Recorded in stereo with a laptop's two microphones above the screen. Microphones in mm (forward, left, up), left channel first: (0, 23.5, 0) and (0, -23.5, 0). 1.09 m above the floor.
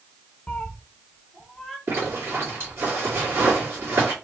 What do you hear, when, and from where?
0.5 s a cat meowing: 25° left (ahead or behind), 0.9 m; by 1.8 s 5° right (ahead or behind), 1.2 m
1.9 s a zipper: 60° right (ahead or behind), 2.5 m